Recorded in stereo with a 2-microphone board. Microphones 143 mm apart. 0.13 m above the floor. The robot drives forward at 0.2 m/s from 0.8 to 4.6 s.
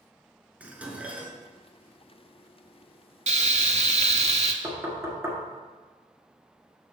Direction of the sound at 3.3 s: 55° right (ahead or behind).